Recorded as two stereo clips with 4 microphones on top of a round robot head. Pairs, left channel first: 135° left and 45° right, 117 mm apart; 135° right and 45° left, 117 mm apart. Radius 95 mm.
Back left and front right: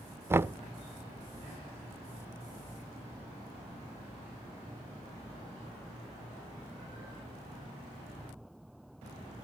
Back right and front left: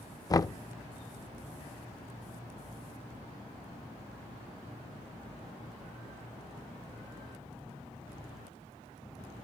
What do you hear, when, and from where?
0.3 s knocking: 100° right, 0.6 m